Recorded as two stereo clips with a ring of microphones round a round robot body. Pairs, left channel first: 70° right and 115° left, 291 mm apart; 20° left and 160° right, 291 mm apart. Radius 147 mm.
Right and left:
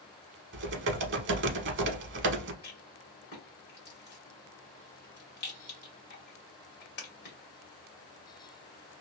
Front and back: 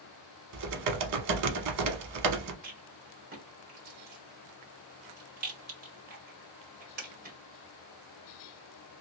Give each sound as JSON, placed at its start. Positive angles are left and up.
{"t": 0.5, "sound": "typing on a keyboard", "azimuth_deg": 165, "distance_m": 0.7}
{"t": 2.6, "sound": "a rattle", "azimuth_deg": -115, "distance_m": 1.8}